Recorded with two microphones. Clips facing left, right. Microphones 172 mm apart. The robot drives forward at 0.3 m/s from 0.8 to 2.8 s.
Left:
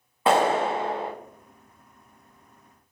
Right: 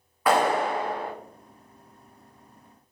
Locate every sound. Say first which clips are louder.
0.3 s a clap: left 1 dB; 25° left (ahead or behind), 0.6 m